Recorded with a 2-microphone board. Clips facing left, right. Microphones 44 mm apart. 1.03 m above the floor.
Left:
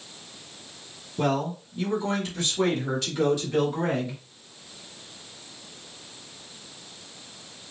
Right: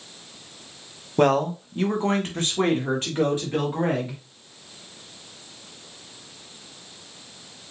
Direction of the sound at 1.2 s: 55° right (ahead or behind).